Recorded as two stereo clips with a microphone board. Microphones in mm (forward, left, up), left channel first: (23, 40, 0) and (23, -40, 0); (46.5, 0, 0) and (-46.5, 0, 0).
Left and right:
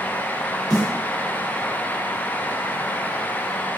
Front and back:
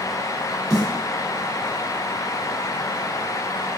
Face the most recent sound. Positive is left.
turn(degrees=100)